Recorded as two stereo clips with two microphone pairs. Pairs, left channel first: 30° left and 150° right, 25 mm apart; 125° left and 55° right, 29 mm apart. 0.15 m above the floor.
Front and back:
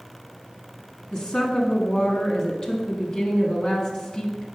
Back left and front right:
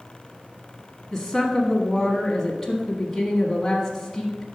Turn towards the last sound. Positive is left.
turn(degrees=25)